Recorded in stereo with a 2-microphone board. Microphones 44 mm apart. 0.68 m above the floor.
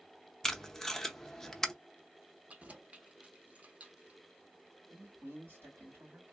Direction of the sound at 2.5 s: 35° right (ahead or behind).